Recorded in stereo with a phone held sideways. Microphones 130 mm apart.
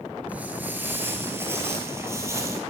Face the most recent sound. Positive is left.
turn(degrees=-20)  # may be behind; listen again after turning